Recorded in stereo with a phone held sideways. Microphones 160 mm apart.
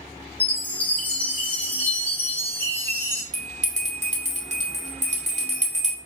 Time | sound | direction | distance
0.4 | a chime | 10° left (ahead or behind) | 1.3 m
3.3 | a bell | 45° right (ahead or behind) | 1.5 m